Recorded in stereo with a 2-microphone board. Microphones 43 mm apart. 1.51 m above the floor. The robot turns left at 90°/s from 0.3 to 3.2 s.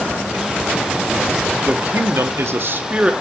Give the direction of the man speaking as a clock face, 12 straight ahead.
1 o'clock.